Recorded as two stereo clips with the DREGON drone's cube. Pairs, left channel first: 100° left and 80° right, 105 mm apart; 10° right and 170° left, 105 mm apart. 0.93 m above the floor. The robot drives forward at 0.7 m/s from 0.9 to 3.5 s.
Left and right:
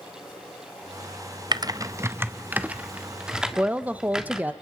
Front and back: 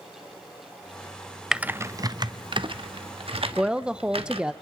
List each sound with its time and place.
1.5 s typing on a keyboard: 105° right, 0.6 m; by 4.4 s 165° right, 1.6 m
3.6 s a woman speaking: 125° right, 0.8 m